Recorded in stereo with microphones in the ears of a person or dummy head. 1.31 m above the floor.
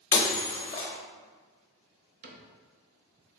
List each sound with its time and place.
0.1 s breaking glass: 20° left (ahead or behind), 0.7 m
2.2 s a cupboard door: 45° right (ahead or behind), 0.6 m